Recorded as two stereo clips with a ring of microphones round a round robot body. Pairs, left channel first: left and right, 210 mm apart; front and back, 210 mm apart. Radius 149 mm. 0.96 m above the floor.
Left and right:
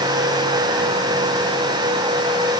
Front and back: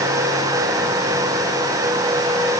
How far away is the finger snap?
I don't hear a finger snap.